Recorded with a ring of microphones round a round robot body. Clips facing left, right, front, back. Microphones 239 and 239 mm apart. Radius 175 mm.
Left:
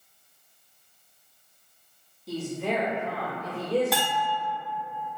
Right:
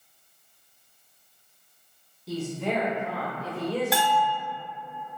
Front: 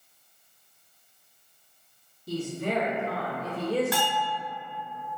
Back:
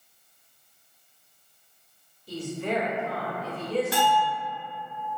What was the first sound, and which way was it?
A woman speaking, straight ahead.